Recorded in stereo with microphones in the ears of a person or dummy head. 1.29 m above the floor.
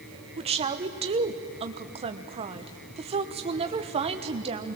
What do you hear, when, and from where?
0.4 s a woman speaking: 30° right (ahead or behind), 1.1 m